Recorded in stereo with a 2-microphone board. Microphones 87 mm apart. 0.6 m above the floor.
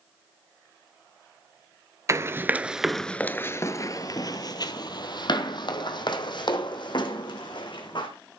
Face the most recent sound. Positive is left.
turn(degrees=60)  # may be behind; listen again after turning